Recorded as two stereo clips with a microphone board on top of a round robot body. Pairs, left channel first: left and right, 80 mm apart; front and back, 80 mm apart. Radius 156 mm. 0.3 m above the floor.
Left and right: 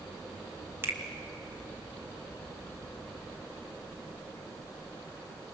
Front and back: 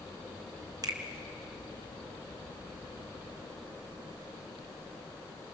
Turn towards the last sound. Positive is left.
turn(degrees=-150)